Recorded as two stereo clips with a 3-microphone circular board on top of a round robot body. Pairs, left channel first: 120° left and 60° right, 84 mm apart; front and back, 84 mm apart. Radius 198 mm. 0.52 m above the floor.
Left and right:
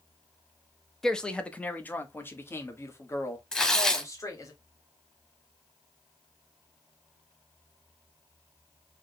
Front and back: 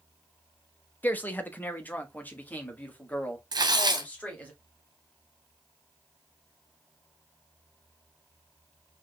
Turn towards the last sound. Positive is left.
turn(degrees=-165)